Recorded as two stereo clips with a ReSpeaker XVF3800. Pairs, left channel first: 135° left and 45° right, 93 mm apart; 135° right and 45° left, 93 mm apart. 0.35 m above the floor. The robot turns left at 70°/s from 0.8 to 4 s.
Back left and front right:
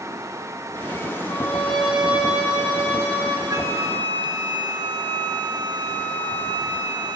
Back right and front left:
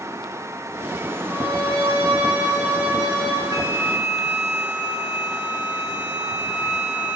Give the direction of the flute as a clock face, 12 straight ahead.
12 o'clock.